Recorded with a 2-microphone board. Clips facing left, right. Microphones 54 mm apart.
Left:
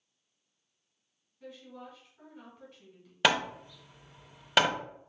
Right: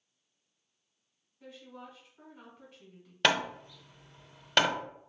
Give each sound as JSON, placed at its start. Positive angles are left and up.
{"t": 1.4, "sound": "a woman speaking", "side_deg": -15, "distance_m": 2.5}
{"t": 3.2, "sound": "hammering", "side_deg": 5, "distance_m": 0.6}